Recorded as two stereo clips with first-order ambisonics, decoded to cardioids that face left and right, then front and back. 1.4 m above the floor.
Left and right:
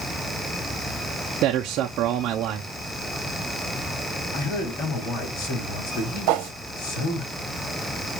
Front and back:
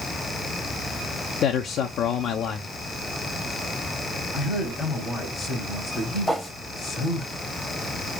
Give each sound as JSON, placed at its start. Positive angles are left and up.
{"t": 1.4, "sound": "a man speaking", "azimuth_deg": -50, "distance_m": 0.7}
{"t": 4.3, "sound": "a man speaking", "azimuth_deg": 70, "distance_m": 3.5}
{"t": 6.3, "sound": "a whoosh", "azimuth_deg": -90, "distance_m": 0.9}